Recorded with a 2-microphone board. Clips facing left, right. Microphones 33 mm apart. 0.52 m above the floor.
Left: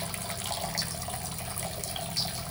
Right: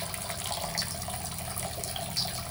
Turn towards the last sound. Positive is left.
No sound to turn to.